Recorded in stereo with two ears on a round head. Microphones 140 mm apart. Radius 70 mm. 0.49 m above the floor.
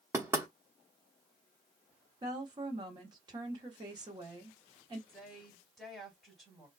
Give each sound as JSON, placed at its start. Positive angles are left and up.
{"t": 0.1, "sound": "knocking", "side_deg": -15, "distance_m": 1.0}
{"t": 2.2, "sound": "a woman speaking", "side_deg": -30, "distance_m": 1.3}
{"t": 5.1, "sound": "a woman speaking", "side_deg": 0, "distance_m": 2.5}